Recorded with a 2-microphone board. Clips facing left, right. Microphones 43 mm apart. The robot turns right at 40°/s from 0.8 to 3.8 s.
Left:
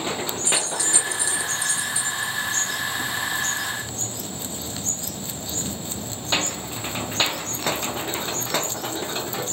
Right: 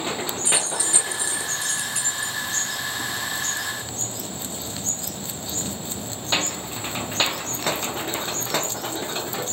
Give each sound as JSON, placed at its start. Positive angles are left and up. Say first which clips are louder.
{"t": 0.5, "sound": "keys jangling", "louder": "left 1 dB", "side_deg": -20, "distance_m": 3.5}